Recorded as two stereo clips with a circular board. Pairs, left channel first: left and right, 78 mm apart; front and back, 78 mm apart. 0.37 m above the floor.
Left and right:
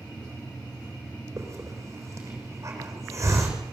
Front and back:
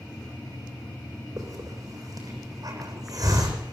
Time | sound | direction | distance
1.4 | a hiss | 140° right | 7.5 m